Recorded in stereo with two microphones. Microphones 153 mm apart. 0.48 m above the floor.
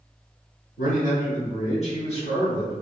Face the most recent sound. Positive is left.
turn(degrees=25)  # may be behind; listen again after turning